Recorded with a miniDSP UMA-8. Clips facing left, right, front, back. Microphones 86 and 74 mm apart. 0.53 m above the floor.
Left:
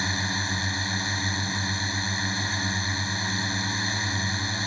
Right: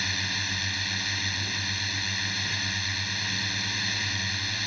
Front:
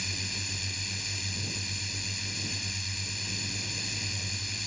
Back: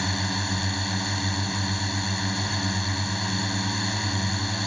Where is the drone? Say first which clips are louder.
Left 4 dB, back 12 dB; 150° left.